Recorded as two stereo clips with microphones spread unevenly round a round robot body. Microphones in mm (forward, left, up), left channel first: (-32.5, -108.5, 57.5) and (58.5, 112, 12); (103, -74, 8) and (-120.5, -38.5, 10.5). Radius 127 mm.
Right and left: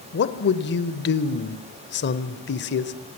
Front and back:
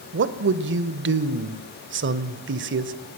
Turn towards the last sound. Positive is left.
turn(degrees=-160)